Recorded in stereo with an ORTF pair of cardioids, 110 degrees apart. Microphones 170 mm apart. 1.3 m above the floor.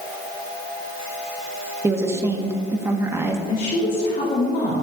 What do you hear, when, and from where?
1.8 s a woman speaking: 15° right, 1.7 m
3.5 s a woman speaking: 50° left, 2.5 m